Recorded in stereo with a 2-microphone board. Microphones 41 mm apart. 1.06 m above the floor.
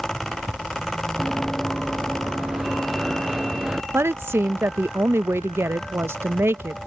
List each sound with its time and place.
1.2 s running footsteps: 5° right (ahead or behind); by 3.8 s 20° right (ahead or behind)
3.9 s a woman speaking: 80° right